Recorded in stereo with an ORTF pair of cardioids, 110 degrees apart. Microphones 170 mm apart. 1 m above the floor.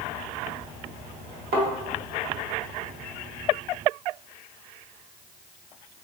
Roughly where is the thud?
Right.